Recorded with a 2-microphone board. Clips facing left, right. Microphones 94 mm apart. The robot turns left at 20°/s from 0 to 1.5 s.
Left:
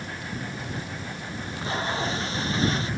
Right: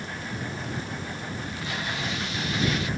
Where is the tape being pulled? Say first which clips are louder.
Left 7 dB; 30° left (ahead or behind).